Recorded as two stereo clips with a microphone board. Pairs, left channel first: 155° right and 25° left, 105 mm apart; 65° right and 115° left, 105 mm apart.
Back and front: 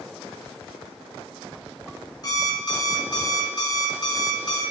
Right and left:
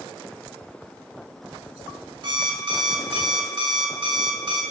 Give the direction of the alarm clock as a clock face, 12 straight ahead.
7 o'clock.